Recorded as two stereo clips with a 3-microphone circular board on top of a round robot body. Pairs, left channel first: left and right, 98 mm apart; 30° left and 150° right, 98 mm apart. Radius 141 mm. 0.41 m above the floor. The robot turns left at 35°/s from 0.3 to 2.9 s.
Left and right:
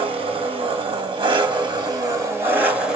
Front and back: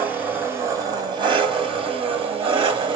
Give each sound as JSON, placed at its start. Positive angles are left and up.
{"t": 0.0, "sound": "an engine running", "azimuth_deg": -80, "distance_m": 2.0}